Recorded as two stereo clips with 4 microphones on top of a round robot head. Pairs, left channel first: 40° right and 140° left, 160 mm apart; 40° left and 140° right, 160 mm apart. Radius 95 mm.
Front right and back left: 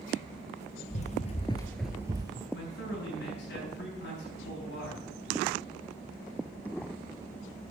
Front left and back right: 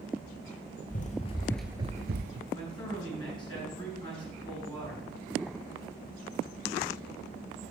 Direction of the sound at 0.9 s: 5° left.